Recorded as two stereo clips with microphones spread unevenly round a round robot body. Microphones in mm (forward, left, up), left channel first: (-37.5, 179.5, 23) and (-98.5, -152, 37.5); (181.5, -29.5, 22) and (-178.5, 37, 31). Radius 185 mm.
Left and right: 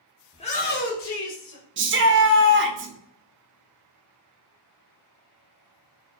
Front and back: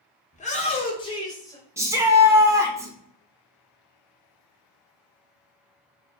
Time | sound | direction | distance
0.3 | a shout | 25° left | 1.0 m
1.8 | a shout | 110° right | 0.8 m